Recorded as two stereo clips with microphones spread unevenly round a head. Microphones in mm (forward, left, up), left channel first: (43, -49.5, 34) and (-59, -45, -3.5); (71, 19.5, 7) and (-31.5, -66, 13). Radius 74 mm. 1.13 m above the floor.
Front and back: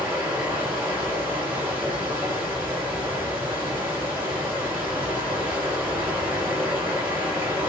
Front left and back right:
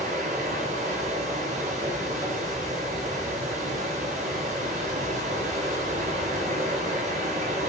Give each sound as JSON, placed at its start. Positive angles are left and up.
{"t": 0.0, "sound": "running water", "azimuth_deg": -110, "distance_m": 6.5}